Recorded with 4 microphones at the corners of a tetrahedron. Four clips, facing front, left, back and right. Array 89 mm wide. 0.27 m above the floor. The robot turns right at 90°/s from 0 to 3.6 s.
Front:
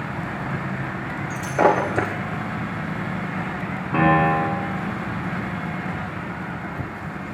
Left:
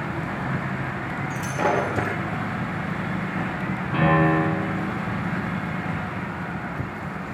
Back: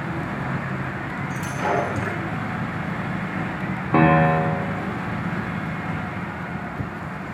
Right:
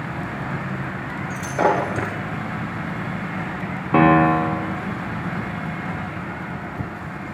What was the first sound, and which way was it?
Breaking glass, 55° right.